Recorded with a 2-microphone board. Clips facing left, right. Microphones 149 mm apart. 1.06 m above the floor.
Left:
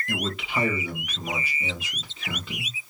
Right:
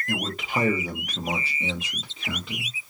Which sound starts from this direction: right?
A man speaking, at 0.1 s.